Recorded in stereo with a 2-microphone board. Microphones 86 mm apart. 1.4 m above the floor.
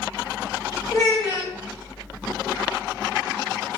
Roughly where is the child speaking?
Left.